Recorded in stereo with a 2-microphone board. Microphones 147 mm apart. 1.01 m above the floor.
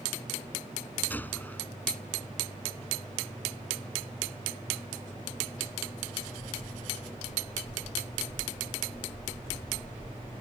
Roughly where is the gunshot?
Centre.